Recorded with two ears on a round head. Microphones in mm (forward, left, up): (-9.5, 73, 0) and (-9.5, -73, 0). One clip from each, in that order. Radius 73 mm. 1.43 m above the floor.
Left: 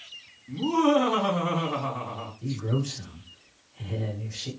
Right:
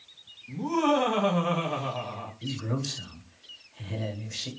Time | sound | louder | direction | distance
0.5 | laughter | left 3 dB | 20° right (ahead or behind) | 2 m
2.4 | a man speaking | left 1 dB | 75° right (ahead or behind) | 1.6 m